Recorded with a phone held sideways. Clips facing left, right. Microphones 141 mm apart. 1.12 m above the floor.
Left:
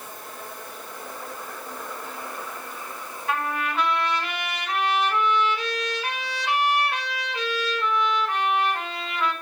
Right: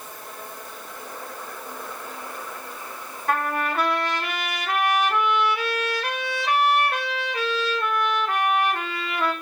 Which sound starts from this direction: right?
A trumpet, at 3.3 s.